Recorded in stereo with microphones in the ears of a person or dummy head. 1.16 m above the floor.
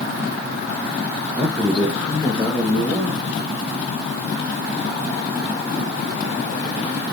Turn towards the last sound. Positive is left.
turn(degrees=10)  # may be behind; listen again after turning